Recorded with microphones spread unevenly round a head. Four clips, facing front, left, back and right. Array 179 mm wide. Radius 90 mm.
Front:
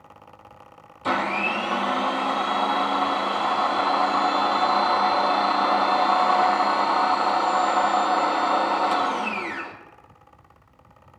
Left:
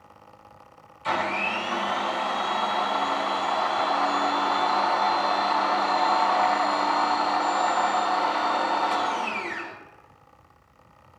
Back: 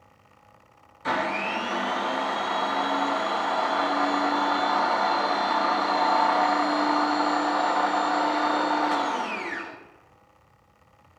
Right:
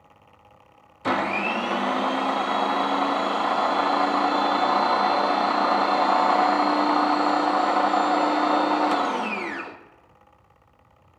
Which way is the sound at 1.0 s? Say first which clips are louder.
Right 2 dB, front 2 dB; 75° right.